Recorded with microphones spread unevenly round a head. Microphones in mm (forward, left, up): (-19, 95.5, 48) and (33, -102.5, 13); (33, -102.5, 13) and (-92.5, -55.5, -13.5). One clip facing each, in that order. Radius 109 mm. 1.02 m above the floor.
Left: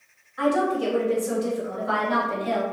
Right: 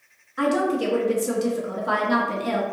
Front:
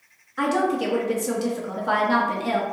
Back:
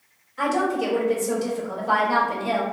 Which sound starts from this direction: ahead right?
A woman speaking, at 0.4 s.